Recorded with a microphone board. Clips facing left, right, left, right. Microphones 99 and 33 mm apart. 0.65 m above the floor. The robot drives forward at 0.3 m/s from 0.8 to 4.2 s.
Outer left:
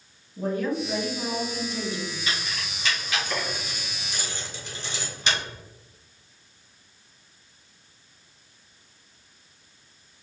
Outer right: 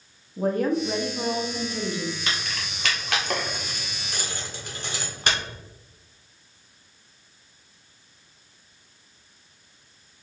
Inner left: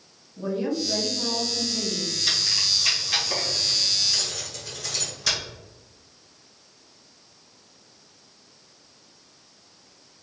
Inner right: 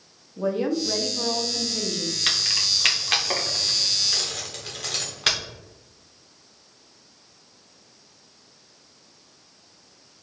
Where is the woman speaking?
50° right (ahead or behind), 1.0 m; by 2.2 s 45° right (ahead or behind), 1.0 m.